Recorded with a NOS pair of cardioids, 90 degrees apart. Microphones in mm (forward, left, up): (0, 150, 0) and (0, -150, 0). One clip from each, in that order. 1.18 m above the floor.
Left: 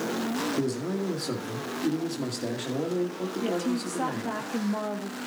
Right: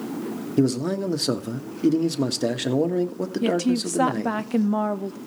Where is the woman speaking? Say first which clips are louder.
Right 7 dB; 55° right, 1.1 m.